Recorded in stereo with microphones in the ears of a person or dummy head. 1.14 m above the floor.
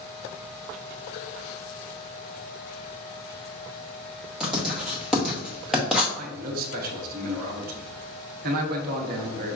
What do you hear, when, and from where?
4.4 s writing: centre (ahead or behind), 0.8 m
6.2 s a man speaking: 45° right (ahead or behind), 0.7 m